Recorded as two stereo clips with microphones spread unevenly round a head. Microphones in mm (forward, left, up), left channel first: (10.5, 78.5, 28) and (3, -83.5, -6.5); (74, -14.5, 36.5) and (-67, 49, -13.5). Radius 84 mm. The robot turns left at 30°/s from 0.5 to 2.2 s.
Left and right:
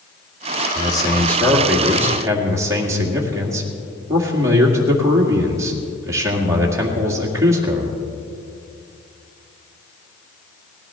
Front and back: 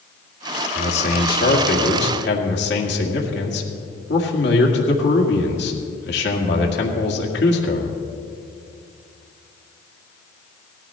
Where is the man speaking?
25° left, 2 m; by 8.0 s 20° right, 2 m.